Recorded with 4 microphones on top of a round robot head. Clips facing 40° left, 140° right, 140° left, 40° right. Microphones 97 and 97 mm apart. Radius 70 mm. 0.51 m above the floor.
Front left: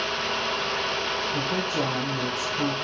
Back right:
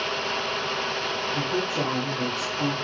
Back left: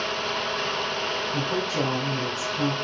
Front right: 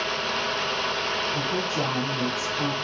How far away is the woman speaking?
About 6 m.